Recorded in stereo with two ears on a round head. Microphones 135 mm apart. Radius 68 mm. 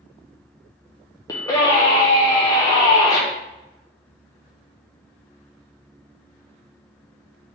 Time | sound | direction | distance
1.3 | a scream | 20° left (ahead or behind) | 0.5 m